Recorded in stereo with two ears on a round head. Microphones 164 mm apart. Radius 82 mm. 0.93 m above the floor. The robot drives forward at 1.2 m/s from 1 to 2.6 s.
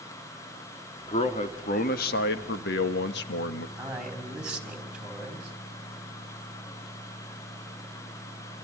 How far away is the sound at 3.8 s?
About 5.5 m.